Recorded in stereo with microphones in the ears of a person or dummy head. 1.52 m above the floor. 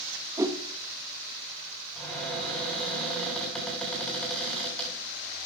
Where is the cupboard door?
Centre (ahead or behind), 6.5 m.